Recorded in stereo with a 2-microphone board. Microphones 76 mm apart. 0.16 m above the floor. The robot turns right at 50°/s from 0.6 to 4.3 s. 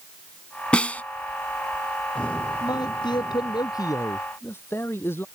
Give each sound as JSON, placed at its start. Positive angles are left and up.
{"t": 0.7, "sound": "a snare drum", "side_deg": 15}
{"t": 2.6, "sound": "a man speaking", "azimuth_deg": 65}